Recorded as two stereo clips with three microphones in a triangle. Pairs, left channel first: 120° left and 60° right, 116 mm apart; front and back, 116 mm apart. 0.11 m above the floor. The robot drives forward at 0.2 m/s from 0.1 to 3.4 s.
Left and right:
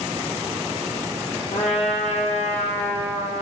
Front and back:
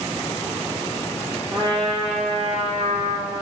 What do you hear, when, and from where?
1.5 s a trumpet: 135° left, 0.7 m; by 3.4 s 150° left, 1.0 m